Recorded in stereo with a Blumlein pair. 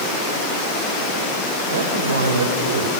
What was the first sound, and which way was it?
A man speaking, 65° right.